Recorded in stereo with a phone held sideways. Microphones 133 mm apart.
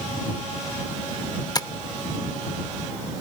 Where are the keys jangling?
I don't hear keys jangling.